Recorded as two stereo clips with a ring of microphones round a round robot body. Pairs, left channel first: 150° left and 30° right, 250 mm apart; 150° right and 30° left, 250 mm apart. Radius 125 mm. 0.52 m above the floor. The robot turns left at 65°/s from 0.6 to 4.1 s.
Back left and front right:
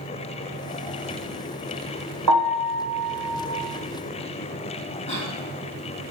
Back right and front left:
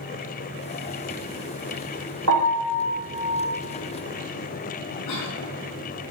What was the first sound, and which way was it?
A piano, 10° right.